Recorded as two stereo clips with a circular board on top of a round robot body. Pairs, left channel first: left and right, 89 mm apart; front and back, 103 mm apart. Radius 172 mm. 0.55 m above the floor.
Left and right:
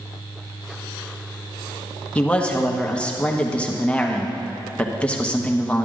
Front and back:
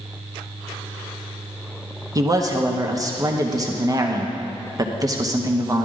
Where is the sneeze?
I don't hear a sneeze.